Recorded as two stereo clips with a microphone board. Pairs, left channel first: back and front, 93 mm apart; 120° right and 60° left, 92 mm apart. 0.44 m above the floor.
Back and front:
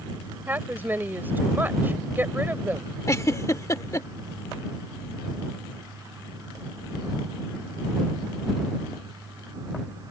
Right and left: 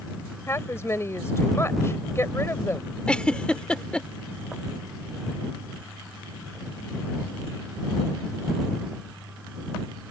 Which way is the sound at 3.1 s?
165° left.